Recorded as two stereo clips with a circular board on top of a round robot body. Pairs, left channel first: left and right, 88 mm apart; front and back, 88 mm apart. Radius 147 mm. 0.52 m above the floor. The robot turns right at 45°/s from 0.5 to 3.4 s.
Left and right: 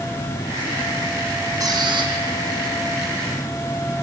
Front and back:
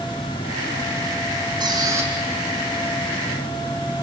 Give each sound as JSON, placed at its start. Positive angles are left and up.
{"t": 1.6, "sound": "a squeak", "azimuth_deg": -140, "distance_m": 3.0}